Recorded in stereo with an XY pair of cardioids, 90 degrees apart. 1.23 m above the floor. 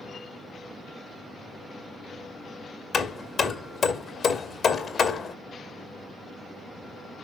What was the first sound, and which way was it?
Hammering, 55° left.